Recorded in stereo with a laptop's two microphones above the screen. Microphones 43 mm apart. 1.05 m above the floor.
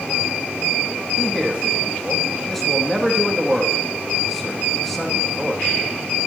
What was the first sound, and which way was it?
A man speaking, 5° left (ahead or behind).